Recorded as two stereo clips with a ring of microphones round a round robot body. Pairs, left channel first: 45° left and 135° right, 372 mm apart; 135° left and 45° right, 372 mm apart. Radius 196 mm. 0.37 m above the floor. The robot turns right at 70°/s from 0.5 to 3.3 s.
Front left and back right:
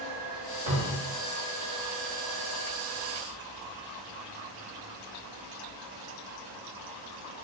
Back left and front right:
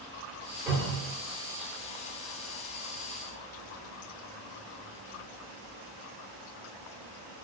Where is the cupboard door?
115° right, 1.4 m; by 1.1 s 85° right, 1.4 m.